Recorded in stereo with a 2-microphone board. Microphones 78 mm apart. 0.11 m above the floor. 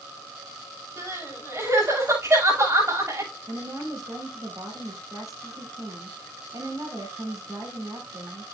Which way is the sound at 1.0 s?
35° right (ahead or behind).